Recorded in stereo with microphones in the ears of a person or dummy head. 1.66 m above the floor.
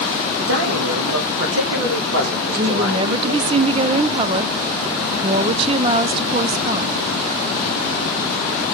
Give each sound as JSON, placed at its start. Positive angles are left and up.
{"t": 0.4, "sound": "a man speaking", "side_deg": -80, "distance_m": 2.0}
{"t": 2.5, "sound": "a woman speaking", "side_deg": -35, "distance_m": 0.6}